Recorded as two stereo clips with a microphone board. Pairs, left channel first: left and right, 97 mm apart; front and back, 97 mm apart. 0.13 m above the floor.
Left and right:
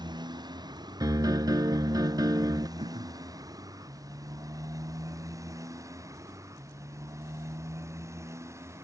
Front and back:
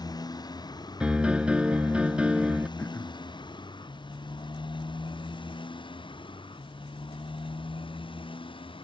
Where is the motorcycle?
45° right; by 8.8 s 30° right.